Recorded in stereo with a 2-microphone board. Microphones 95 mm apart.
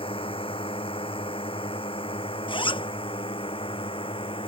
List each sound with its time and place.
0.0 s a drone: 75° left (ahead or behind)
2.5 s a zipper: 65° left (ahead or behind)